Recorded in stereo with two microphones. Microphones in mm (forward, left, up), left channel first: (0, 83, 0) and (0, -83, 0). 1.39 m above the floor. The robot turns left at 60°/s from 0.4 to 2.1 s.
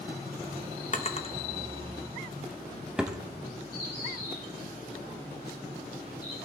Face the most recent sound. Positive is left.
turn(degrees=75)  # may be behind; listen again after turning